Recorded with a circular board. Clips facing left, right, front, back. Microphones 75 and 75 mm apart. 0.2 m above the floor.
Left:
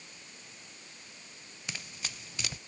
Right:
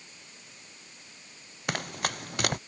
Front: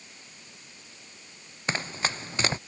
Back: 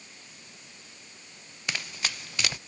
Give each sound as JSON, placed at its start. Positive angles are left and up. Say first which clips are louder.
{"t": 1.7, "sound": "running footsteps", "louder": "right 12 dB, front 5 dB", "azimuth_deg": -55}